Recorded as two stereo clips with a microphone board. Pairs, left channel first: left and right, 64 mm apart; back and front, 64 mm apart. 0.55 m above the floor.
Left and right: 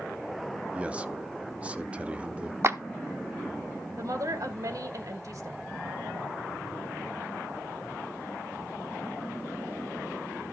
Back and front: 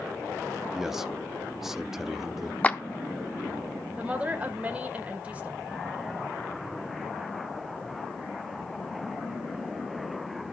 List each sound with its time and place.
0.7 s a man speaking: 75° right, 0.6 m
2.6 s a clap: 115° right, 0.7 m
4.0 s a woman speaking: 70° right, 1.6 m